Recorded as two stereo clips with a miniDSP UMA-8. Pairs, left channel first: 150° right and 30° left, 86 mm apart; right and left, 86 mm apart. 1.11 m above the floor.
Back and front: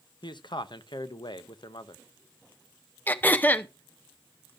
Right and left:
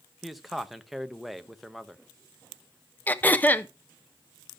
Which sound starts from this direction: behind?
A man speaking, at 0.2 s.